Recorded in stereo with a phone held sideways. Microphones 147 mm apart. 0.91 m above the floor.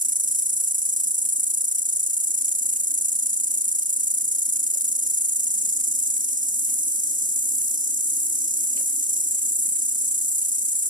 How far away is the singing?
No singing in this recording.